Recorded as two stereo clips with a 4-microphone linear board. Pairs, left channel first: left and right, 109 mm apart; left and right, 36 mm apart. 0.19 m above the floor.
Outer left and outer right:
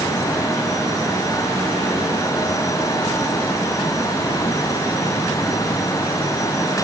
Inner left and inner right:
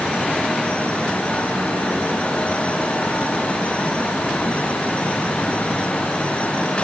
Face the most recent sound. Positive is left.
No sound to turn to.